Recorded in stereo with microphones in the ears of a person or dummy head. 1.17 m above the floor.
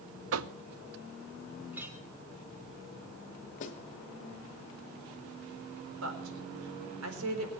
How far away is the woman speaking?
About 4 m.